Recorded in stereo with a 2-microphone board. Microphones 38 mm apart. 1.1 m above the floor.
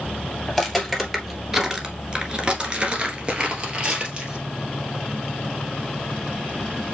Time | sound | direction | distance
0.5 | footsteps | centre (ahead or behind) | 1.7 m